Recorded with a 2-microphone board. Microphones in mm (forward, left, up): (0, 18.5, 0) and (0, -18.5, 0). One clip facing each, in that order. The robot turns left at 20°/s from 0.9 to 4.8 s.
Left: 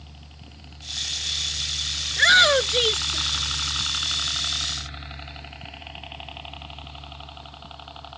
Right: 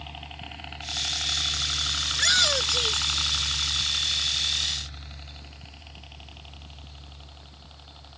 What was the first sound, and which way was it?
A helicopter, 50° right (ahead or behind).